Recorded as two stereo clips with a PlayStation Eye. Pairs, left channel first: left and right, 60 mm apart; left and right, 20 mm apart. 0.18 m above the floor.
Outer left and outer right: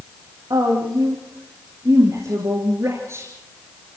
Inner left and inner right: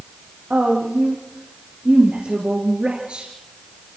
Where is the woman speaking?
80° right, 6 m; by 3.3 s 45° right (ahead or behind), 2.5 m.